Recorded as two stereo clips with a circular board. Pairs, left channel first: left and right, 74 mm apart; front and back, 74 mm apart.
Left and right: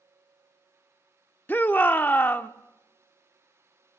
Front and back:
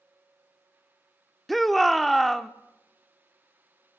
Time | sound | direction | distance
1.5 | a shout | 90° left | 0.8 m